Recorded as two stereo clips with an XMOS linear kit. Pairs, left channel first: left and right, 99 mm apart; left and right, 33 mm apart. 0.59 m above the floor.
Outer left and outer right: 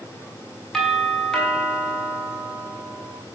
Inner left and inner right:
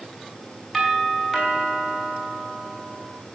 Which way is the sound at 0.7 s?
5° left (ahead or behind).